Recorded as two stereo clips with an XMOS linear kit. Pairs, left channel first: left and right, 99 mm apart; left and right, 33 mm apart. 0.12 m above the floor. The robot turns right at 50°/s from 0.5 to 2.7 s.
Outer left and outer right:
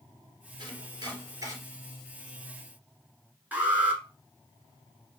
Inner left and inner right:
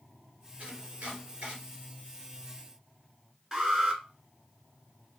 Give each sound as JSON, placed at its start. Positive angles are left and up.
{"t": 0.6, "sound": "chopping", "side_deg": -45, "distance_m": 2.5}
{"t": 3.5, "sound": "an alarm", "side_deg": -15, "distance_m": 1.0}